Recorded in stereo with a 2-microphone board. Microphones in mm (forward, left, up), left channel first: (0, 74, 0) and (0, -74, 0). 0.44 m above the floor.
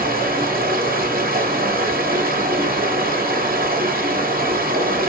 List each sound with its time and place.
0.0 s running water: 80° right, 1.0 m